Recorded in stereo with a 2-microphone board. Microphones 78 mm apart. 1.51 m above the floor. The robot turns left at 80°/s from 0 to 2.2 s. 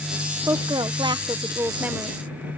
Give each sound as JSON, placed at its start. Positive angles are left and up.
{"t": 0.5, "sound": "a woman speaking", "azimuth_deg": -45}